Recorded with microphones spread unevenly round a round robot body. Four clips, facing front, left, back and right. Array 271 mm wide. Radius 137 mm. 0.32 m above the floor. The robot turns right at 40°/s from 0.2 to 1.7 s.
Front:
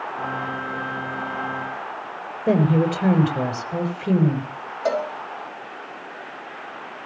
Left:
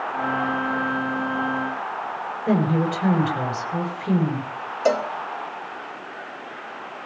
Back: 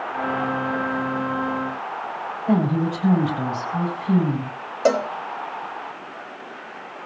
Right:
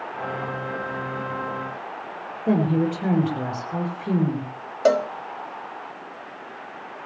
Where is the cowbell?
140° right, 1.2 m.